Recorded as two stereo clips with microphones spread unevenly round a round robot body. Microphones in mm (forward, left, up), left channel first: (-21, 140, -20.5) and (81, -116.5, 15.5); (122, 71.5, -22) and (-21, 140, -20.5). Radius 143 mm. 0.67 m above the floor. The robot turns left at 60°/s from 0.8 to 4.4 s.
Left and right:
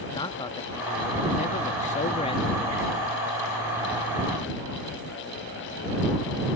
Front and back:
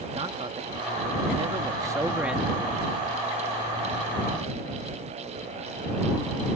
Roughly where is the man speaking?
Behind.